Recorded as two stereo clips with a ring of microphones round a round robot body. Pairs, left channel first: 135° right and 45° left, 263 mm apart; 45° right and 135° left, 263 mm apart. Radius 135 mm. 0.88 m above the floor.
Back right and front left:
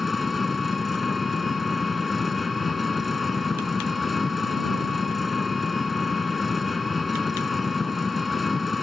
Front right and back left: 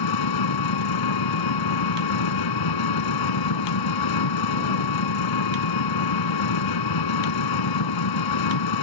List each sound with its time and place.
0.0 s an engine running: 45° right